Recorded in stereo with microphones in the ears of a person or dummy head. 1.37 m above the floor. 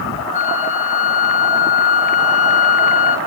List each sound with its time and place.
0.3 s a flute: 40° left (ahead or behind), 1.1 m